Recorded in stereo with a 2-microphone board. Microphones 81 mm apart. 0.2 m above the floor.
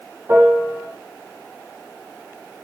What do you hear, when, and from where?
0.3 s a piano: 30° right (ahead or behind), 7 m